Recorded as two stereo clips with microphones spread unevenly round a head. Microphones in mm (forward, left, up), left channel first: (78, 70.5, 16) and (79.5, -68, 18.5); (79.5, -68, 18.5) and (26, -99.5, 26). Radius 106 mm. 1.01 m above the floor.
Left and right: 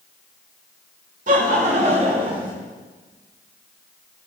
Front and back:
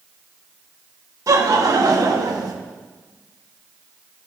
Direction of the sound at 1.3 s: 135° right.